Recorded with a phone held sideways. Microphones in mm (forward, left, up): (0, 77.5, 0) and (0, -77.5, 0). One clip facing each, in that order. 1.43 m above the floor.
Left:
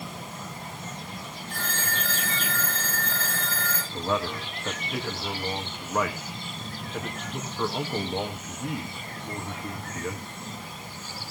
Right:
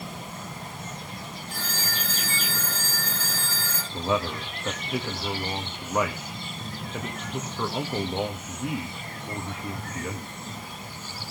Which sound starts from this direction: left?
A phone ringing, at 1.5 s.